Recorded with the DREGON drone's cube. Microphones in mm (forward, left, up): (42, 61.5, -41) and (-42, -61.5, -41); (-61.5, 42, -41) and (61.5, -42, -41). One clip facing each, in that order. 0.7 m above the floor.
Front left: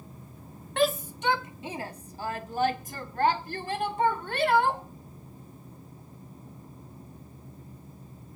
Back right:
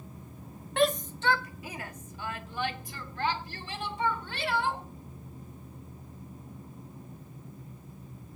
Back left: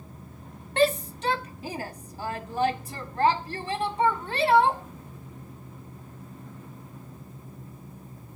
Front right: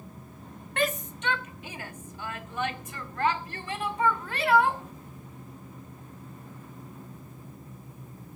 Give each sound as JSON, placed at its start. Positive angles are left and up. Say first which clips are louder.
{"t": 0.8, "sound": "a shout", "louder": "front left 1 dB, back left 6 dB", "azimuth_deg": 145, "distance_m": 0.7}